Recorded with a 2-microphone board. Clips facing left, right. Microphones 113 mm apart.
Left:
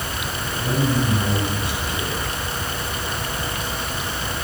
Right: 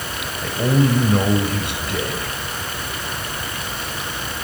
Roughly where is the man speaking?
Right.